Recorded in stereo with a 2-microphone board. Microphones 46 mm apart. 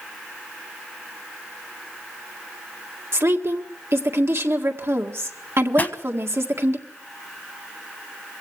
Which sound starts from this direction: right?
A woman speaking, at 3.1 s.